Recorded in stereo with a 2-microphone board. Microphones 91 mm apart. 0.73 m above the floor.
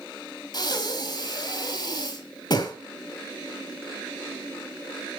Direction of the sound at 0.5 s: 50° left (ahead or behind).